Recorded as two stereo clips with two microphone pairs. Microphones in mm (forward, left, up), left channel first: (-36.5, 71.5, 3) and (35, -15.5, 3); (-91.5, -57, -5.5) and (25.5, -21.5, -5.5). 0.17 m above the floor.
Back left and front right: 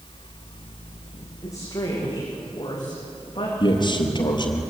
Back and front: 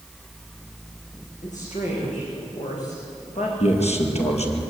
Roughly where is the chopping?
No chopping in this recording.